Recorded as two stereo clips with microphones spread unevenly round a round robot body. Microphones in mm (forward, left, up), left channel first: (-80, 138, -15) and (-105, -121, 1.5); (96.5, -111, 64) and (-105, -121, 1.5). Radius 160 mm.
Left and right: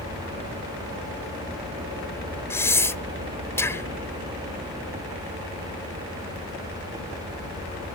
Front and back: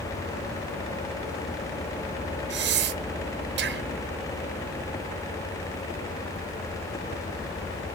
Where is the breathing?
165° left, 1.0 m.